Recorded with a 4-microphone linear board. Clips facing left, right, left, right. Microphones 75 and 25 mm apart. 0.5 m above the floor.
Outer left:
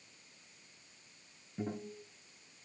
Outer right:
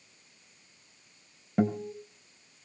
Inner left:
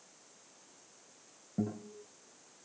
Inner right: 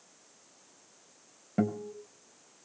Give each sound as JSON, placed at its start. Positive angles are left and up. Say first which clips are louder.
{"t": 1.6, "sound": "a guitar", "louder": "outer right 12 dB, inner right 7 dB", "side_deg": -65, "distance_m": 2.5}